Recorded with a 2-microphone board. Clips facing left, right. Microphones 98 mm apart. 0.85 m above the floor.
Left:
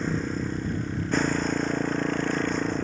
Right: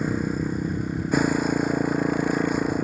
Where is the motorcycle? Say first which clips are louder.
Right 3 dB; 10° right (ahead or behind).